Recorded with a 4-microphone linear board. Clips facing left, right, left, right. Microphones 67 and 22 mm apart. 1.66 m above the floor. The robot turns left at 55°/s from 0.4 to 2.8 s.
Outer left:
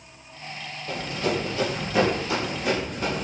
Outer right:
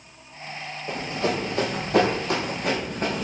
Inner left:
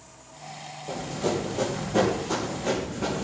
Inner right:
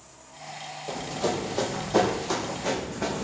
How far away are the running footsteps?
About 2 m.